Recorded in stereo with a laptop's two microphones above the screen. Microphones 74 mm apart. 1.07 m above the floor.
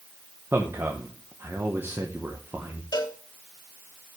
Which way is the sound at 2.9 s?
70° left (ahead or behind).